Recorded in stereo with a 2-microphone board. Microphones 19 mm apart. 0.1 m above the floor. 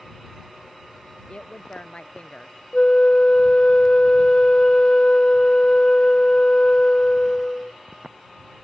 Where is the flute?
50° left (ahead or behind).